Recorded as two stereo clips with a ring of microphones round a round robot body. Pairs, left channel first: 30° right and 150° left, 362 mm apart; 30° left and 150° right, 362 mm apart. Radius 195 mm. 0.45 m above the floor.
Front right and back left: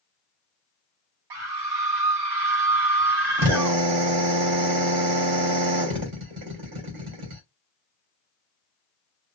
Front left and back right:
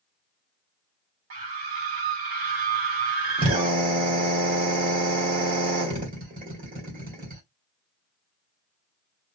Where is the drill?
145° left, 2.5 m.